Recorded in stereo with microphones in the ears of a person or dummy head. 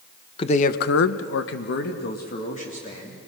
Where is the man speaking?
30° left (ahead or behind), 1.0 m; by 3.2 s 40° left (ahead or behind), 3 m.